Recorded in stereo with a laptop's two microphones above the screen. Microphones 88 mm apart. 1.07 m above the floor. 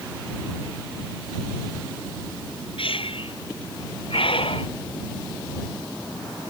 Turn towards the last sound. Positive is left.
turn(degrees=80)